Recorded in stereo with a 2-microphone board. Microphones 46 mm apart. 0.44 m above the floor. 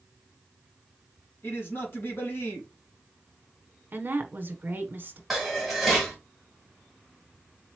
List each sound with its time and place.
1.4 s a man speaking: 50° left (ahead or behind), 3 m
3.9 s a woman speaking: 45° right (ahead or behind), 1.1 m
5.3 s dishes clattering: 5° right (ahead or behind), 2 m